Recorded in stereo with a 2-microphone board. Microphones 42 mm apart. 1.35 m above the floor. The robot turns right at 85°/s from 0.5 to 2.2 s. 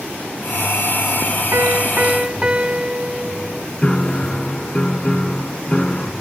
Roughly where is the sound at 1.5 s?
Right.